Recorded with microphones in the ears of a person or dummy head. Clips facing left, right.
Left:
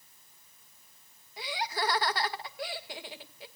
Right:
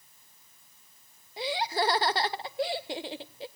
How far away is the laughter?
About 0.7 m.